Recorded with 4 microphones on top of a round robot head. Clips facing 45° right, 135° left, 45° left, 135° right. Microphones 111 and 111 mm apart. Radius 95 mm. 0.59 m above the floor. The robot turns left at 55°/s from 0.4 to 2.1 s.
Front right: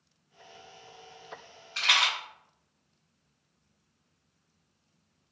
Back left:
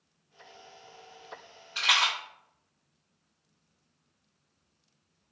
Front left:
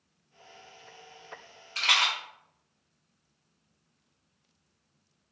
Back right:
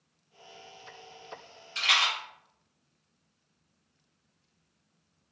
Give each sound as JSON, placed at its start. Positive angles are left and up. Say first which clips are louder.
{"t": 1.8, "sound": "a rattle", "louder": "back left 1 dB, even", "azimuth_deg": 60, "distance_m": 1.1}